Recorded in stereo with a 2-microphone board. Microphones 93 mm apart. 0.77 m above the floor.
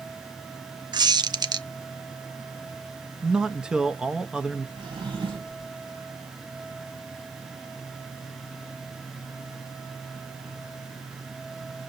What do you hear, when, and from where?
0.9 s a squeak: 50° right (ahead or behind), 0.5 m
3.2 s a man speaking: 10° right (ahead or behind), 0.6 m
4.8 s a drawer: 65° right (ahead or behind), 3 m